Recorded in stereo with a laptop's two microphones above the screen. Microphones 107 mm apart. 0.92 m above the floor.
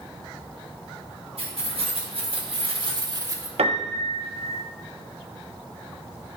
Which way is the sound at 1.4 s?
85° right.